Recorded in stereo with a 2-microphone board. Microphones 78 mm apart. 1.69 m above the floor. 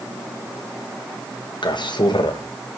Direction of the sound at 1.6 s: 75° left (ahead or behind).